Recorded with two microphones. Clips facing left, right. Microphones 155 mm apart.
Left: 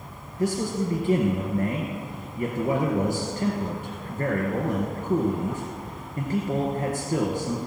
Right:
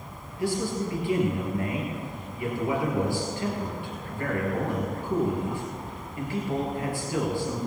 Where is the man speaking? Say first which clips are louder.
Left 2 dB; 45° left (ahead or behind), 1.9 m.